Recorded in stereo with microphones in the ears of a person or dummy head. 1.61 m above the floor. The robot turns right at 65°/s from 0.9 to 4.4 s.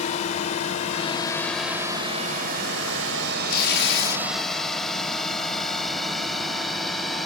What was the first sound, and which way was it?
A drone, 45° left (ahead or behind).